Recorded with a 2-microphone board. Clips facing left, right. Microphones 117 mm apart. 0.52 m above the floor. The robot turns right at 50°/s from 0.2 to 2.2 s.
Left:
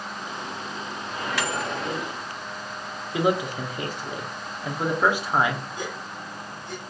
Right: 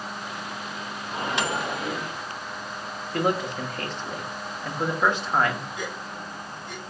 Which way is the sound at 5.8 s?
30° left (ahead or behind).